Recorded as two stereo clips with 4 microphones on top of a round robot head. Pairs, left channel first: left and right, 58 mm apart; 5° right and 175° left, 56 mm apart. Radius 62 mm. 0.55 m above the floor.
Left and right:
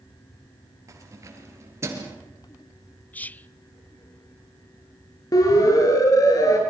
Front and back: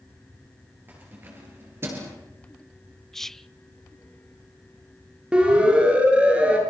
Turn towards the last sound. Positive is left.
turn(degrees=110)